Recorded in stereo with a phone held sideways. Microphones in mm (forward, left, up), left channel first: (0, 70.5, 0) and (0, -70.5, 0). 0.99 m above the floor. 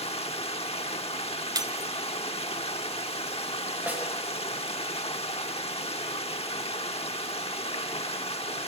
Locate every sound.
0.0 s running water: 45° left (ahead or behind), 1.1 m
1.6 s breaking glass: 30° right (ahead or behind), 1.5 m
3.9 s a snare drum: 10° right (ahead or behind), 4 m